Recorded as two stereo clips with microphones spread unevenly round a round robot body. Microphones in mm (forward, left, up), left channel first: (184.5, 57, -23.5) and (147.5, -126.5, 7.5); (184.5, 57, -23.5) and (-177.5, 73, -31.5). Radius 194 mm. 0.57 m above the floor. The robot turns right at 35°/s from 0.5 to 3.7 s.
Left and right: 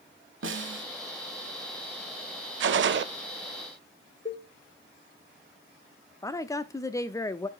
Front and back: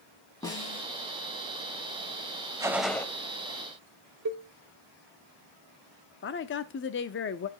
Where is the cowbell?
140° left, 0.9 m.